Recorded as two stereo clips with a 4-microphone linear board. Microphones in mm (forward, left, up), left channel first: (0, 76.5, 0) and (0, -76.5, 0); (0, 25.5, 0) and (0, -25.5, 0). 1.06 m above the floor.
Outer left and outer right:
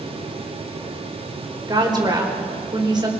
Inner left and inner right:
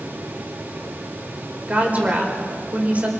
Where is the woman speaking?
30° right (ahead or behind), 4.5 m.